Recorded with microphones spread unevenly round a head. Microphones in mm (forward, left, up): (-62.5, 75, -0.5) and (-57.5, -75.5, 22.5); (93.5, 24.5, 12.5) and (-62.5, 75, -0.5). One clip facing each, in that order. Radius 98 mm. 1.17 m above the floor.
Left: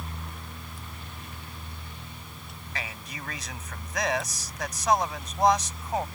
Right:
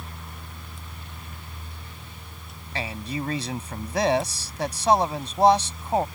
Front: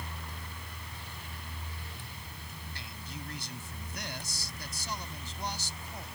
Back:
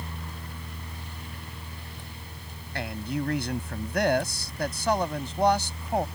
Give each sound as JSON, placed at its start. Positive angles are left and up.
{"t": 2.8, "sound": "a man speaking", "azimuth_deg": -145}